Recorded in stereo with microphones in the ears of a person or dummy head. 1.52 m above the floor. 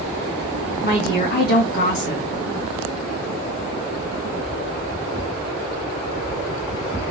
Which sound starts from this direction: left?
A woman speaking, at 0.8 s.